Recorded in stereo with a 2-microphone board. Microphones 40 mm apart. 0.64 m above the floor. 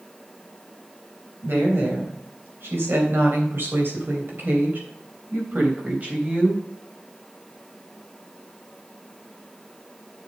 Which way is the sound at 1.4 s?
75° right (ahead or behind).